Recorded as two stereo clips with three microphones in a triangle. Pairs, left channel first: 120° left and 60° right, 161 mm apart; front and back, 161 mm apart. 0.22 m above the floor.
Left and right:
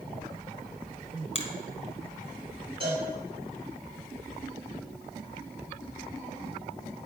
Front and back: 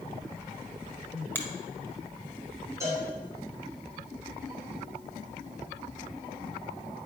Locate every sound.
1.4 s a finger snap: 75° left, 1.3 m
2.8 s a cowbell: 110° right, 3 m